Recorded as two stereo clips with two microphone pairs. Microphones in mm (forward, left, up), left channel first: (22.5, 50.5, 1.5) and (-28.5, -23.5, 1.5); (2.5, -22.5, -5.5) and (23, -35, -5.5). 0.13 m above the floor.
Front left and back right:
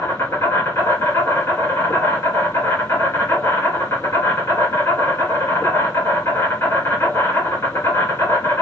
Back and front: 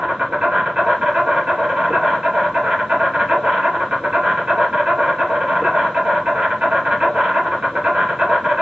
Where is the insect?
Straight ahead, 2 m.